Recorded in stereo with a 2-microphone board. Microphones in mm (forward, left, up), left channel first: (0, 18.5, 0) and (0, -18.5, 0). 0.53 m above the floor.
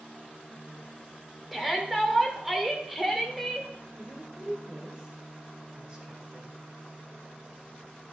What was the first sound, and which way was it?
A shout, 5° right (ahead or behind).